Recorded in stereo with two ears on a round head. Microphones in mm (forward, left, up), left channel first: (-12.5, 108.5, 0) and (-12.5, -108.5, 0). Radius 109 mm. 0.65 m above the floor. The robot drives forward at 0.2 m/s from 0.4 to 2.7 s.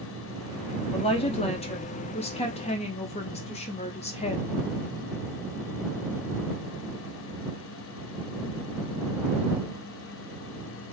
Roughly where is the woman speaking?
Left.